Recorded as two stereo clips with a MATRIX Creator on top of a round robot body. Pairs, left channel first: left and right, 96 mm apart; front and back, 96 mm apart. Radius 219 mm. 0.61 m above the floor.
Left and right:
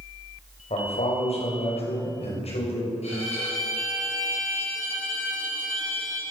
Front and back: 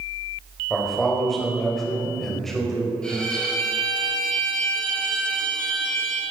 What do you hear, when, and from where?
0.7 s a man speaking: 85° left, 4.5 m
3.0 s a violin: 80° left, 5 m